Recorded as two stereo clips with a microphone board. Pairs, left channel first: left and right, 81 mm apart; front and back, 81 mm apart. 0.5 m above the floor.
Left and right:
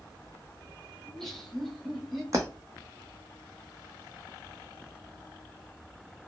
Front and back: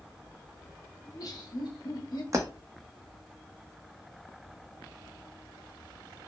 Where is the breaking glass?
135° right, 1.0 m.